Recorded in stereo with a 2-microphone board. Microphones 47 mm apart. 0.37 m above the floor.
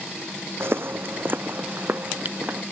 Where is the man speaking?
No man speaking in this recording.